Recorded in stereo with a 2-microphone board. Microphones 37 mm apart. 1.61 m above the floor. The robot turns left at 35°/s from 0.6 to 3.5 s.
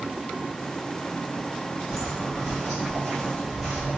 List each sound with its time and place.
1.9 s footsteps: 10° right (ahead or behind), 1.7 m; by 4.0 s 5° right (ahead or behind), 1.7 m